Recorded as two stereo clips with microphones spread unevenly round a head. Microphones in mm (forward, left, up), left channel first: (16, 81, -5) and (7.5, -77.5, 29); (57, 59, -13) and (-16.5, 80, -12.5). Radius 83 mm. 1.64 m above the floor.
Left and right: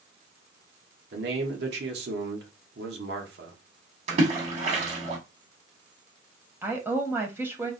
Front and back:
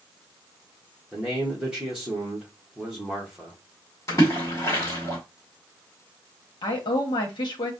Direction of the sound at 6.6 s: 25° right.